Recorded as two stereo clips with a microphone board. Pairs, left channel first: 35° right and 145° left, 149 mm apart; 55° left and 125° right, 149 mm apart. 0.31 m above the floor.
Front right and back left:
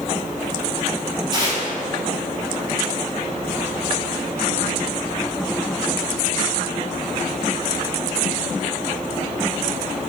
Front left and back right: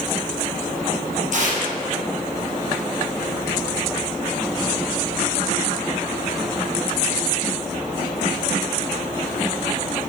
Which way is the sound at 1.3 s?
150° right.